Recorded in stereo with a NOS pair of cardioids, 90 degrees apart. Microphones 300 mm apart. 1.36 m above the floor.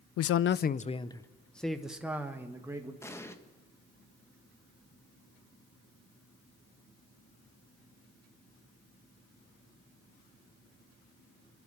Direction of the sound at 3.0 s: 10° left.